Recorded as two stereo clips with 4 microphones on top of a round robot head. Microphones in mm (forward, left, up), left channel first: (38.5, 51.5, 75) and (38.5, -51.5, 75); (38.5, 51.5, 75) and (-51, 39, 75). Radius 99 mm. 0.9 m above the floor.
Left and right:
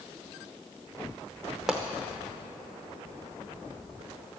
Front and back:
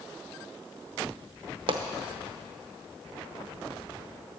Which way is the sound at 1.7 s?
175° right.